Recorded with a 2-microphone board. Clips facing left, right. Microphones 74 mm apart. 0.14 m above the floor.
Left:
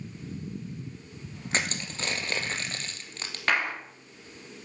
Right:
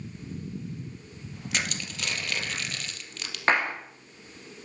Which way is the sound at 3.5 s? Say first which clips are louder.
Right 3 dB; 30° right (ahead or behind).